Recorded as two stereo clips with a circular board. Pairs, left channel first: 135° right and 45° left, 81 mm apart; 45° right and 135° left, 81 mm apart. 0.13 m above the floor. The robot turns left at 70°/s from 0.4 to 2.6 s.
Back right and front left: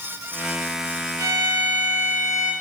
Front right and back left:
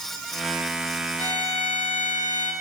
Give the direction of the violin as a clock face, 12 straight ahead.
12 o'clock.